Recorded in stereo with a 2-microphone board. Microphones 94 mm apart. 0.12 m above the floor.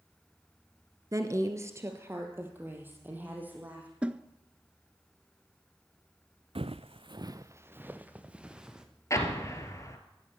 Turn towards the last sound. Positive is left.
turn(degrees=35)  # may be behind; listen again after turning